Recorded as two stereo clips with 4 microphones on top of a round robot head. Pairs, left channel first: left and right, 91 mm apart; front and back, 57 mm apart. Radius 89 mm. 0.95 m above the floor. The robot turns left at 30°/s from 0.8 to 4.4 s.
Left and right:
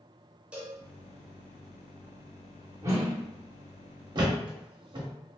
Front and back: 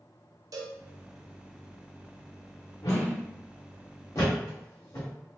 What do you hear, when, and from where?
0.5 s a cowbell: 170° right, 0.8 m
2.8 s a whoosh: 35° right, 0.8 m; by 3.2 s 45° right, 0.8 m
4.2 s a thud: 45° right, 1.0 m; by 5.1 s 55° right, 1.0 m